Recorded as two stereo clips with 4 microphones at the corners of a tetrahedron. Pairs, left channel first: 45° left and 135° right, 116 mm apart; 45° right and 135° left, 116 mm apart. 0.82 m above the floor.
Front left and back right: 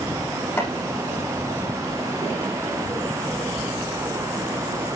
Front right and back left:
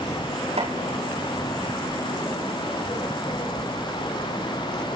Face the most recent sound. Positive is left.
turn(degrees=120)